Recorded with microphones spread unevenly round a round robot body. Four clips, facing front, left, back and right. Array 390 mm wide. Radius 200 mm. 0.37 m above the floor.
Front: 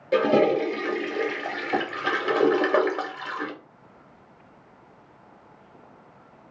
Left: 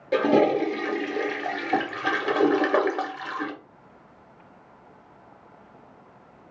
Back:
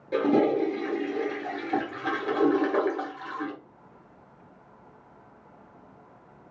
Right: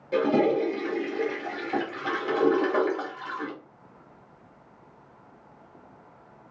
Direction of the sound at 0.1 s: 35° left.